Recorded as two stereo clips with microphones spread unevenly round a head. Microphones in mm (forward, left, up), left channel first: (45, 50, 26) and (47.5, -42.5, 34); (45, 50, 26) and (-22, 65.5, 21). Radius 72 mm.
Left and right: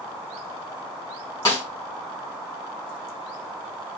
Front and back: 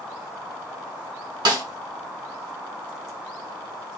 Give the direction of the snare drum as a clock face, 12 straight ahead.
7 o'clock.